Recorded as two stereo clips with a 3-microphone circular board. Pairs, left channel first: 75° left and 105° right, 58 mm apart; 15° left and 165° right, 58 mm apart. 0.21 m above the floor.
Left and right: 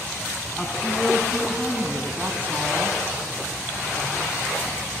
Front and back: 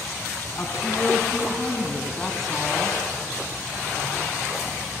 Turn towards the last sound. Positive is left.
turn(degrees=-80)